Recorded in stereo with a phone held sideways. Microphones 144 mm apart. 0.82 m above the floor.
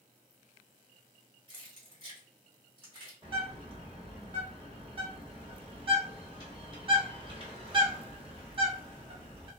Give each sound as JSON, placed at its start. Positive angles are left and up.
{"t": 1.5, "sound": "keys jangling", "side_deg": -35, "distance_m": 1.3}
{"t": 3.2, "sound": "a bird", "side_deg": -40, "distance_m": 1.0}